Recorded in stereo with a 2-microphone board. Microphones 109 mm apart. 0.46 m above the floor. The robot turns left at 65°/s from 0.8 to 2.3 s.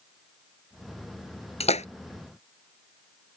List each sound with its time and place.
1.6 s a splash: 65° left (ahead or behind); by 1.9 s 80° left